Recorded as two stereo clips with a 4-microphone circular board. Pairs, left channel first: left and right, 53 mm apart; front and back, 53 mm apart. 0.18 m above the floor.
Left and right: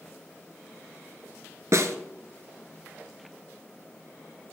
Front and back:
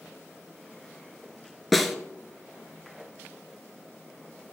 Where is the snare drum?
85° right, 1.0 m.